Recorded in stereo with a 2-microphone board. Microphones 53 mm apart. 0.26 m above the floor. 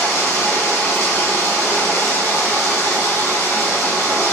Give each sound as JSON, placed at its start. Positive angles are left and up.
{"t": 0.0, "sound": "running water", "side_deg": 75, "distance_m": 1.1}